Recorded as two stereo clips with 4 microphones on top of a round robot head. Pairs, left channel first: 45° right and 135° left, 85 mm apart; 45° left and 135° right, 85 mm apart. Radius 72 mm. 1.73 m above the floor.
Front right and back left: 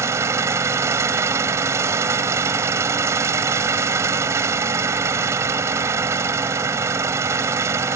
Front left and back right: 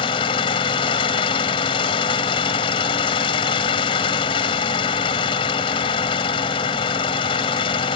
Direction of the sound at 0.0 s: 75° left.